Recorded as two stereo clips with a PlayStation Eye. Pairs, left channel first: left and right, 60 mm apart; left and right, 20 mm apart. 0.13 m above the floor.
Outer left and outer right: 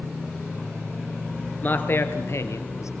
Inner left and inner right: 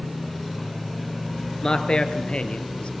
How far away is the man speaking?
About 2 m.